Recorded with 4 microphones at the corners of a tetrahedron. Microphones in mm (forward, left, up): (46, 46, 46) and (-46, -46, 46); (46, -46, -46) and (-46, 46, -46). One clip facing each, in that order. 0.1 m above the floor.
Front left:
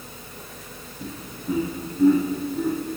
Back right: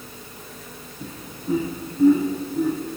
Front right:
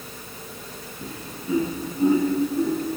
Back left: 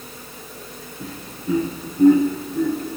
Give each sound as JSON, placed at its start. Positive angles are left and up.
{"t": 1.0, "sound": "laughter", "azimuth_deg": 155, "distance_m": 7.0}